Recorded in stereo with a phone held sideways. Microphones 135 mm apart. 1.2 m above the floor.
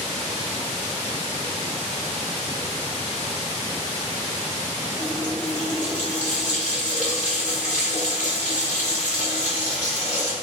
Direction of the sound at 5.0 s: 80° left.